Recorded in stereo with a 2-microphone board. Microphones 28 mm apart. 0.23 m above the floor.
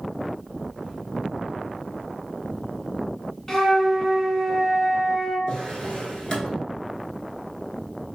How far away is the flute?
About 0.7 m.